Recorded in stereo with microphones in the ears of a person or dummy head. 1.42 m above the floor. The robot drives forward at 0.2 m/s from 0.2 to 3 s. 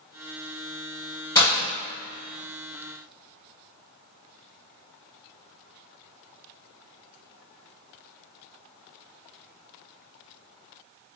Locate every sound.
1.4 s breaking glass: 15° left (ahead or behind), 1.2 m